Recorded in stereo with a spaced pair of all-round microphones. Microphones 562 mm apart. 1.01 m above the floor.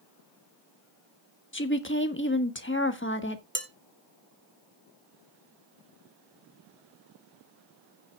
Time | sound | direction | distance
1.5 | a woman speaking | 20° left (ahead or behind) | 1.3 m
3.5 | dishes clattering | 20° right (ahead or behind) | 1.7 m